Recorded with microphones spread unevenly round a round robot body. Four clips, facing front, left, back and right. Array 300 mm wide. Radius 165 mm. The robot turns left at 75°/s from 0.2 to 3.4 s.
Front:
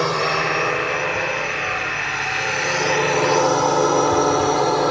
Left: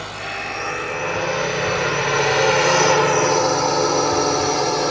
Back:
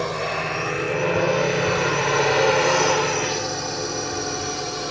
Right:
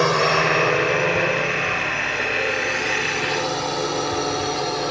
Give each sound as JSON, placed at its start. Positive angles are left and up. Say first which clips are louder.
{"t": 0.0, "sound": "a drone", "louder": "right 11 dB, front 5 dB", "azimuth_deg": -75}